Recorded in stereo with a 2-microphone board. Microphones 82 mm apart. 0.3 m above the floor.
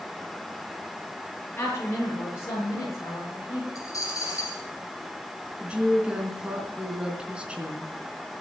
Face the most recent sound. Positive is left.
turn(degrees=-15)  # may be behind; listen again after turning